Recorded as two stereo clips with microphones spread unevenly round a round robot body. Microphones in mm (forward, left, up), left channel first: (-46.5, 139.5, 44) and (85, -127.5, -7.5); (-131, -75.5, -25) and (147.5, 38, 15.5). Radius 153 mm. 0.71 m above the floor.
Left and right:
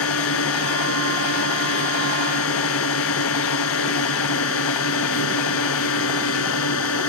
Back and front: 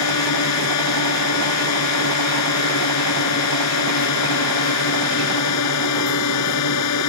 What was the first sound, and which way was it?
A drone, 165° left.